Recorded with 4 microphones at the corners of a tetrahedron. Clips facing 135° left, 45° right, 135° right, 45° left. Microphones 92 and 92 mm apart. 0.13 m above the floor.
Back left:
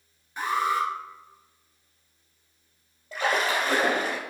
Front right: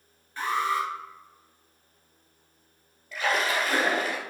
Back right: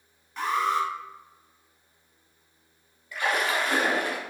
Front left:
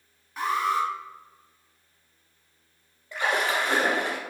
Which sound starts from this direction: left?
A splash, at 3.1 s.